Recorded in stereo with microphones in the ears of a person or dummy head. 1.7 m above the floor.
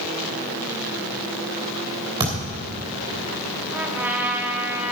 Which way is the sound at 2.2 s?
20° right (ahead or behind).